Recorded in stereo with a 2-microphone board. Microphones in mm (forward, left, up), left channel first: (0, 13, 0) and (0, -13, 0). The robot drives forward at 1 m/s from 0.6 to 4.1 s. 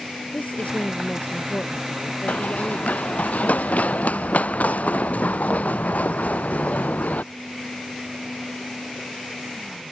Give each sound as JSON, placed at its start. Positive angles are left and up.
{"t": 0.3, "sound": "a woman speaking", "side_deg": 70}
{"t": 2.3, "sound": "running footsteps", "side_deg": 75}